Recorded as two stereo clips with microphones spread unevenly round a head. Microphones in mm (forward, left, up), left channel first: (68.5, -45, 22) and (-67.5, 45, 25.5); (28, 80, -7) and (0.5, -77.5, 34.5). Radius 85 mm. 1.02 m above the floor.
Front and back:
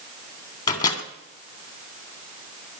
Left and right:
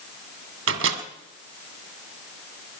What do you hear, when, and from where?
0.7 s a microwave: 100° right, 2.0 m